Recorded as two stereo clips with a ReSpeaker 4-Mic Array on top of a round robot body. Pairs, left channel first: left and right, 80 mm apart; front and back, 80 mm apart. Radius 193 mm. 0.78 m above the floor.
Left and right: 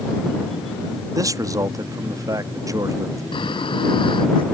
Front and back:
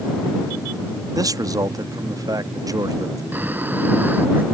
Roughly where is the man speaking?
Behind right.